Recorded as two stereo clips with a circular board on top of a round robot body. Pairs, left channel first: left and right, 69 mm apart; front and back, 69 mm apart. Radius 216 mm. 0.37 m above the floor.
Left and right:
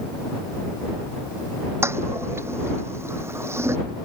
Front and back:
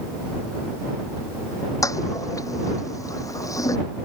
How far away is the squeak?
I don't hear a squeak.